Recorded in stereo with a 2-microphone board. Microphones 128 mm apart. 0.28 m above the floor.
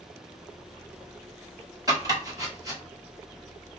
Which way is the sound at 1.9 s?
30° right (ahead or behind).